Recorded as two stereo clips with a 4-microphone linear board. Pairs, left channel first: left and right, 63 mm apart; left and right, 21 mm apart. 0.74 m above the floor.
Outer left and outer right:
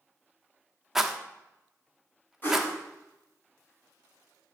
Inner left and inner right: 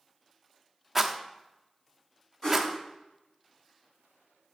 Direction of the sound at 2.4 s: 30° left (ahead or behind).